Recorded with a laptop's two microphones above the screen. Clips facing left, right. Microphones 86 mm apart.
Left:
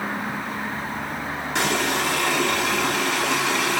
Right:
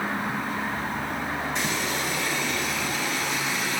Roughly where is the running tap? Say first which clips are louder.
Left 5 dB; left.